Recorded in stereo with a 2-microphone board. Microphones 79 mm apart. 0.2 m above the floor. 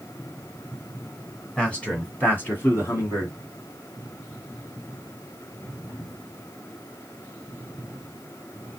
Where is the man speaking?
15° left (ahead or behind), 1.9 m; by 3.3 s 40° left (ahead or behind), 2 m.